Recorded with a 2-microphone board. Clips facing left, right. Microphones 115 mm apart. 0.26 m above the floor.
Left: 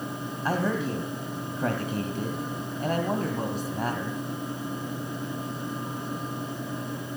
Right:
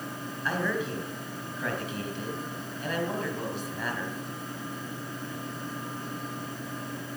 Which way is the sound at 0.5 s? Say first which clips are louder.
Left 3 dB; 40° left (ahead or behind).